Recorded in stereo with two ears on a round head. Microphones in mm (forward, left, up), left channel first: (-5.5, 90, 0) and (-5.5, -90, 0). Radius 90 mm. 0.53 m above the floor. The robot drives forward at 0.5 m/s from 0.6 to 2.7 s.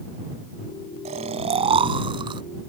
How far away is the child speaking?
No child speaking in this recording.